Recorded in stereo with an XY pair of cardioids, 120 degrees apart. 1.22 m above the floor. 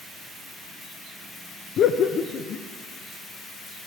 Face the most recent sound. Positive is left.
turn(degrees=60)